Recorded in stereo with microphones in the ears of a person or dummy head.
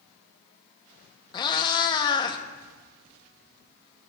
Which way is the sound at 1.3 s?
20° left (ahead or behind).